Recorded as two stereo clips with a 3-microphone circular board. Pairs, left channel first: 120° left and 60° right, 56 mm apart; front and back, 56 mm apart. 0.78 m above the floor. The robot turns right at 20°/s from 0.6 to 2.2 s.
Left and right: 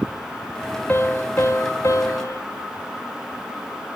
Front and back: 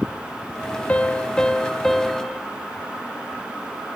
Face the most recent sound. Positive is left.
turn(degrees=90)